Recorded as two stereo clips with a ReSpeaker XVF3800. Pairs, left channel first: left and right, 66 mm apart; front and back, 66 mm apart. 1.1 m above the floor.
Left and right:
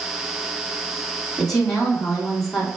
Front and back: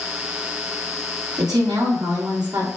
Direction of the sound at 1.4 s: 175° left.